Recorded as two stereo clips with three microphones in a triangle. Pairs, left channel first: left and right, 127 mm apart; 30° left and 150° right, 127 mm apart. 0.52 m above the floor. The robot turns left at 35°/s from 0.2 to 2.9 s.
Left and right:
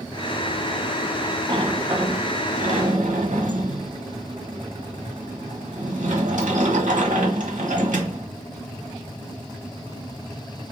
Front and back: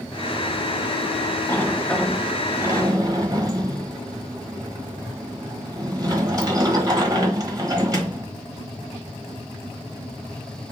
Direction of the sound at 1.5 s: 35° right.